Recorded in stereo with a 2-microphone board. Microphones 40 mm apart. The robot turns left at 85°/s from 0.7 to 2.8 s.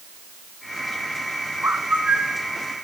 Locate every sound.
1.6 s a bird: 100° right, 0.9 m; by 2.4 s 170° right, 0.9 m